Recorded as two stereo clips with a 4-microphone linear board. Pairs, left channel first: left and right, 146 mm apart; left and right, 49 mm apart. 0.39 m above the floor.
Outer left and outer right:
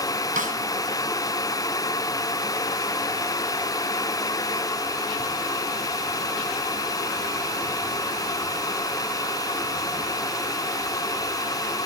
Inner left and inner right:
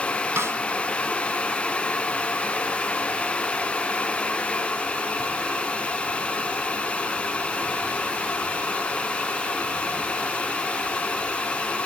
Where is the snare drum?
65° right (ahead or behind), 2.5 m.